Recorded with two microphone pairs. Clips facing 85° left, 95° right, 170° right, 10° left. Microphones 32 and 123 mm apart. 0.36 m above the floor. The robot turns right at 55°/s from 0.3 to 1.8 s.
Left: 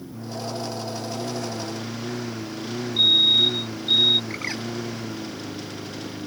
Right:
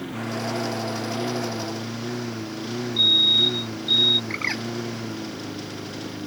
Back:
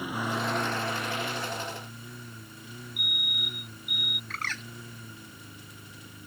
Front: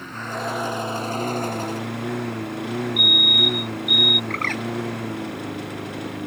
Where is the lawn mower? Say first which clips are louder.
Right 4 dB, front 1 dB; 90° right; by 6.3 s 10° right.